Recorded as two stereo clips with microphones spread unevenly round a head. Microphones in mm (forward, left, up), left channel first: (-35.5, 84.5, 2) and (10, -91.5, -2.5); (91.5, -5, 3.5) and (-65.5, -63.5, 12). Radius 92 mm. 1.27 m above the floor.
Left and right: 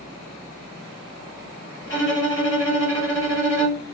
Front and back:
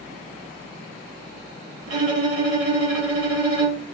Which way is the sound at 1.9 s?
175° left.